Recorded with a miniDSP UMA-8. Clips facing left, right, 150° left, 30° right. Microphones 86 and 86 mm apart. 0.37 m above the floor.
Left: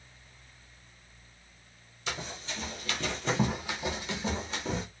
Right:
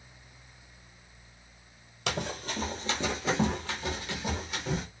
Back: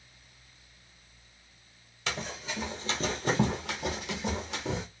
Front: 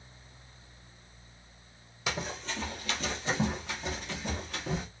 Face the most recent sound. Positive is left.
turn(degrees=145)